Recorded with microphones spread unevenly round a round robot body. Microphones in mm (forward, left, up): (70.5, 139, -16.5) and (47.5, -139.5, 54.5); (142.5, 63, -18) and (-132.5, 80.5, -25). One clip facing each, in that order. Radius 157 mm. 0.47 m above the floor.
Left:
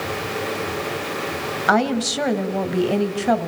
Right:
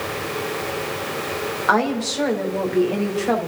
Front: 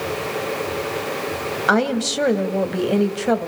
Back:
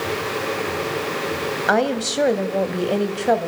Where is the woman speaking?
75° left, 3 m.